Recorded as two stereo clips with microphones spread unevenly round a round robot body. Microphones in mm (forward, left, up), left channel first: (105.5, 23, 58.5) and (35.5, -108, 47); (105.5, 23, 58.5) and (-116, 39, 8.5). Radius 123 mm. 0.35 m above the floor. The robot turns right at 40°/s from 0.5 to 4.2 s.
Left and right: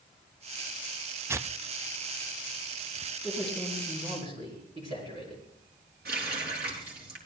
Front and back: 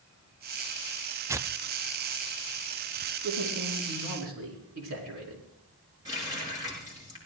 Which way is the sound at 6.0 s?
110° right.